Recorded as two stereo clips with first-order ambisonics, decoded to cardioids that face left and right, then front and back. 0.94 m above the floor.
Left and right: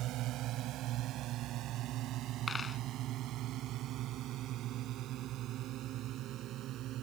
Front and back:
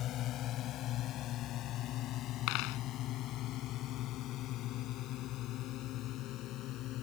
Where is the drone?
45° right; by 7.0 s 40° right.